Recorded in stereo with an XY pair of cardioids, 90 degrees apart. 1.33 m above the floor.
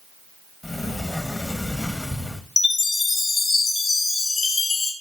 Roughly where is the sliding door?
Ahead.